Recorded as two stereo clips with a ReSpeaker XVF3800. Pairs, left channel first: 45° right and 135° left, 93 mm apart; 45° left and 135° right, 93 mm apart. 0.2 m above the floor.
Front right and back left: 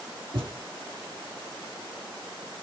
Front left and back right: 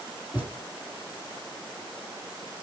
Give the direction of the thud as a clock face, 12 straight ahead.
7 o'clock.